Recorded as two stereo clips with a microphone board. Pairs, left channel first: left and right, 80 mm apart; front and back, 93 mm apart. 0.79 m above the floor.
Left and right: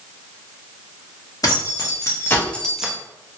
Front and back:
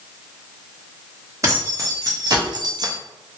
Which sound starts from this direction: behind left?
Keys jangling, at 1.4 s.